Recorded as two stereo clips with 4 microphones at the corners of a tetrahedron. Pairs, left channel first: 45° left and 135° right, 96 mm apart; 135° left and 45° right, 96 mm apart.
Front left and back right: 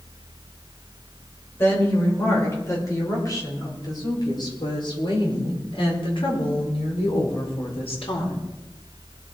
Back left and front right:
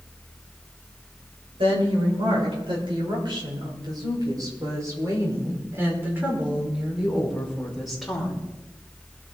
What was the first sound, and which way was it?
A woman speaking, 20° right.